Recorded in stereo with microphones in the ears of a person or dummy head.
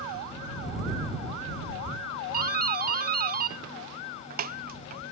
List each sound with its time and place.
2.3 s a doorbell: 50° right (ahead or behind)